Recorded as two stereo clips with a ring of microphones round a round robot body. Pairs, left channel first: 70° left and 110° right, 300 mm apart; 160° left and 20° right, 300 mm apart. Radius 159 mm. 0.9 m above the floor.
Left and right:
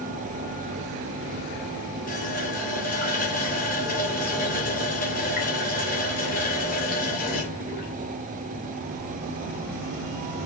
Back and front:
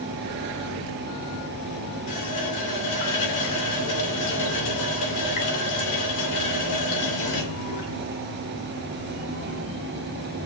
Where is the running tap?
130° left, 3 m.